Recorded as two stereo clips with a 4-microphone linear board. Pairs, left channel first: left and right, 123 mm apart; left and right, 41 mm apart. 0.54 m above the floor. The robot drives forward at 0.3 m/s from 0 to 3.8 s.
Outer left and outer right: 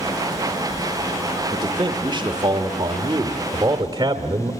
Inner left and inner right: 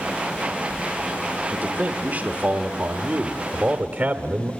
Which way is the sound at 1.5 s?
45° right (ahead or behind).